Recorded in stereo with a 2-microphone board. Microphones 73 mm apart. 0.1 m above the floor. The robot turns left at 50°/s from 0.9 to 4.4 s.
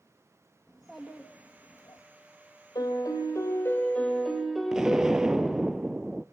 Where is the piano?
85° left, 3 m; by 5.6 s straight ahead, 3 m.